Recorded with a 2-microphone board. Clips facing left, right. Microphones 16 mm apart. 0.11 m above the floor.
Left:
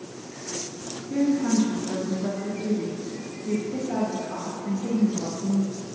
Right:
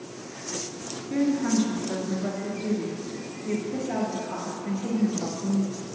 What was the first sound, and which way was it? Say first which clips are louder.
A woman speaking: left 1 dB; 20° right (ahead or behind).